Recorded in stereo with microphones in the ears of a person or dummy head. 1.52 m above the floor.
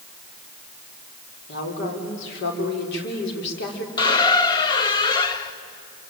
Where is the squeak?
25° left (ahead or behind), 1.6 m.